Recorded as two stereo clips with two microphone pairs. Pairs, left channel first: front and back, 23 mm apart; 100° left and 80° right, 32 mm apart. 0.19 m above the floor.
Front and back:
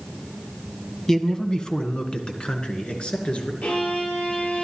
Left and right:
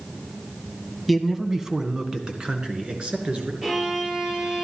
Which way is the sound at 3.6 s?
10° right.